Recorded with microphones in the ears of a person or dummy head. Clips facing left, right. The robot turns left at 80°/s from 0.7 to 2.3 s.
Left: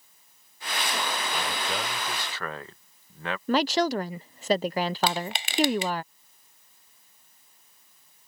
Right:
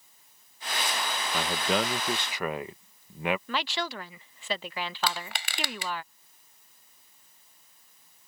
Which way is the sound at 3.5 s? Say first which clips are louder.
Left 10 dB; 35° left (ahead or behind).